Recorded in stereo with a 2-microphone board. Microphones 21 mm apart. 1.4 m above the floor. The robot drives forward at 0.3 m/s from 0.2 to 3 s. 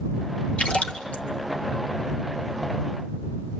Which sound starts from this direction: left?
A splash, at 0.6 s.